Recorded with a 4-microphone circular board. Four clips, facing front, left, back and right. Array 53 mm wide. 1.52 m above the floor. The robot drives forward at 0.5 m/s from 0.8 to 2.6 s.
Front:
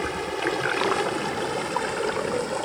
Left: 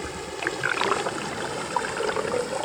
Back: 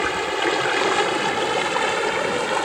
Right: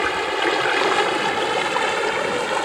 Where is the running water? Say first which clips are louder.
Right 10 dB, back 5 dB; 120° right; by 2.6 s 130° right.